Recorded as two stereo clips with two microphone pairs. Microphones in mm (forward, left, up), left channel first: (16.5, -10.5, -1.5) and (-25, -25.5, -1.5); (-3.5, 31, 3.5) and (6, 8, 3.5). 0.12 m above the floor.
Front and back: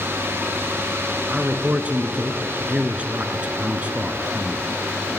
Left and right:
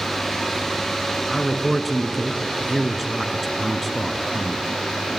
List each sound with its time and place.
1.3 s a man speaking: 170° right, 1.6 m